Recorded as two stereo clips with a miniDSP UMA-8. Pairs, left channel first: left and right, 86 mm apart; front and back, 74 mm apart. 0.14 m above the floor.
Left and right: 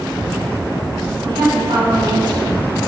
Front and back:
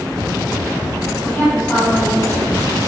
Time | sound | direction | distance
1.2 | a woman speaking | 65° right | 4 m